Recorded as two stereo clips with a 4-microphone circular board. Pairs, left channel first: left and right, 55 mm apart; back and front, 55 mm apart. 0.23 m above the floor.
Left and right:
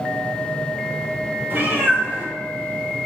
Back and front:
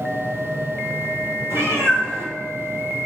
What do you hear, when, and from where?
1.5 s a cat meowing: 40° right, 1.2 m; by 3.0 s 5° left, 0.8 m